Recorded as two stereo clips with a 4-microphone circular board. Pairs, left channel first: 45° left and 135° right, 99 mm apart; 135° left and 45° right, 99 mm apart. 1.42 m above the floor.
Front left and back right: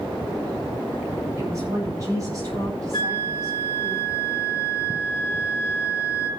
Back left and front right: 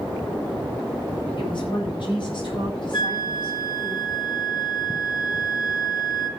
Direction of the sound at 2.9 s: 90° left.